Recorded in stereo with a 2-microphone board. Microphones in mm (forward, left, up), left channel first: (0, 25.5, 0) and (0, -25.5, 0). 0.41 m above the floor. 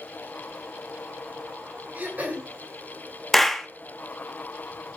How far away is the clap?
About 0.7 m.